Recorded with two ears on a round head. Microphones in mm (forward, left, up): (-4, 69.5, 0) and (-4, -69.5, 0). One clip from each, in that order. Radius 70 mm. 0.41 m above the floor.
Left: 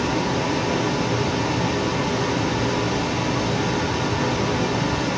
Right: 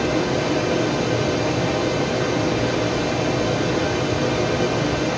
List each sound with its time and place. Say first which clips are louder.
0.0 s running water: right 2 dB; 20° right (ahead or behind), 3 m